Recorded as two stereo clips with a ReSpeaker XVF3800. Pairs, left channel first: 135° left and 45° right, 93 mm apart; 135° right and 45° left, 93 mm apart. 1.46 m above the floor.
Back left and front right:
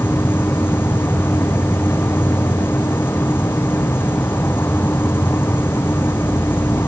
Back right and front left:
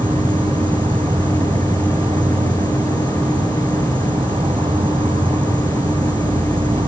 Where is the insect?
70° left.